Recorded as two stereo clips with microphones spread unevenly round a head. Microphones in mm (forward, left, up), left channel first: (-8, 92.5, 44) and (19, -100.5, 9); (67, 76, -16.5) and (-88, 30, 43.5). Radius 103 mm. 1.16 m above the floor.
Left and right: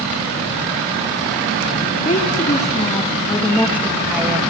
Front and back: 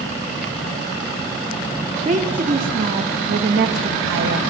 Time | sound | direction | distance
2.0 | a woman speaking | 150° left | 3 m